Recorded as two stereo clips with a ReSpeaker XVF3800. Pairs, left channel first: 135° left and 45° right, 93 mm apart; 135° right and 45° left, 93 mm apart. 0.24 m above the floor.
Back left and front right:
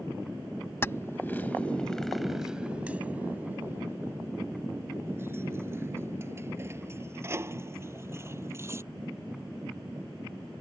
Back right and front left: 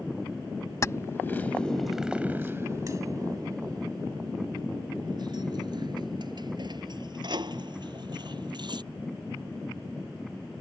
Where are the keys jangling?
175° right; by 8.8 s 15° left.